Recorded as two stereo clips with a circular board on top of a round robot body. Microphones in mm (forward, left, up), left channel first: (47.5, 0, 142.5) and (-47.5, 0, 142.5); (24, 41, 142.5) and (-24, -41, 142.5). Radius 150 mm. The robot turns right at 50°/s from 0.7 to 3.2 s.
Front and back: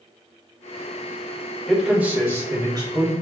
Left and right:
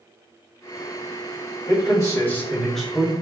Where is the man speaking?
90° left, 1.6 m; by 3.1 s 165° left, 1.6 m.